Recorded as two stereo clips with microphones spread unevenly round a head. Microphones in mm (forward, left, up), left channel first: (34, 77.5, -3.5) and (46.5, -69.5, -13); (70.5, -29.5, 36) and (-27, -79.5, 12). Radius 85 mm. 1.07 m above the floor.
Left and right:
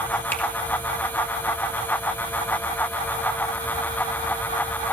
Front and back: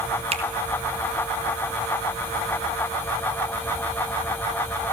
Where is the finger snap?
175° left, 2 m.